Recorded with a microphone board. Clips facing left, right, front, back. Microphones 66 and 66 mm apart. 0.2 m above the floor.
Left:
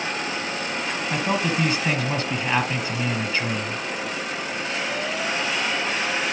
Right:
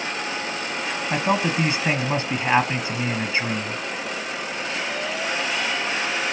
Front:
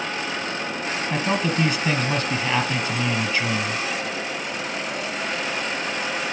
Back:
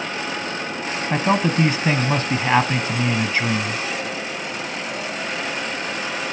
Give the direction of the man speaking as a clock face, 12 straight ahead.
5 o'clock.